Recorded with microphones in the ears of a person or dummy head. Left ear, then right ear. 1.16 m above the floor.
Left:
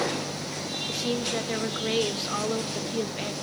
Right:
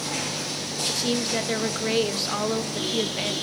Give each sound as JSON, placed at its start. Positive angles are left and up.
{"t": 0.9, "sound": "a woman speaking", "side_deg": -15, "distance_m": 0.9}